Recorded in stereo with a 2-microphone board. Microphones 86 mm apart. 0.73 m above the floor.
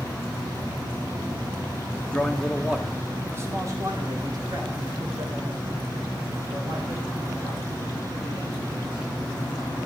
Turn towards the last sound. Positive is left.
turn(degrees=-75)  # may be behind; listen again after turning